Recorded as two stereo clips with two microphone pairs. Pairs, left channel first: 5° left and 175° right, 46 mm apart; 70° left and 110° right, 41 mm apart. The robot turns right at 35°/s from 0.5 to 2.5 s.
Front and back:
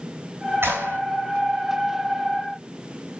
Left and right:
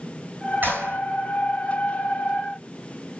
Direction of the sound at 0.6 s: 150° right.